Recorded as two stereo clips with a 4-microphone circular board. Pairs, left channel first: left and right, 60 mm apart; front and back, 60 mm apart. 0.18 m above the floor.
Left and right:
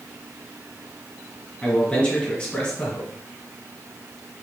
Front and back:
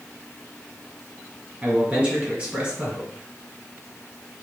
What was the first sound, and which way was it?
A man speaking, 140° left.